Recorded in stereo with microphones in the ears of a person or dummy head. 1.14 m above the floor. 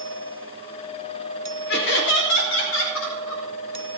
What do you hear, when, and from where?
1.7 s laughter: 60° left (ahead or behind), 2.5 m; by 3.4 s 75° left (ahead or behind), 5 m